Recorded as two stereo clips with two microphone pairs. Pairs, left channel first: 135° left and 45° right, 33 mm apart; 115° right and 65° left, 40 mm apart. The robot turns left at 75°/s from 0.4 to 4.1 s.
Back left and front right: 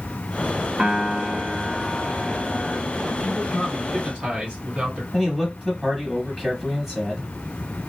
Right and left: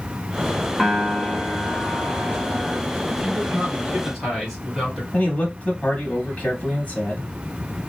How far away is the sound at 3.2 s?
About 2 m.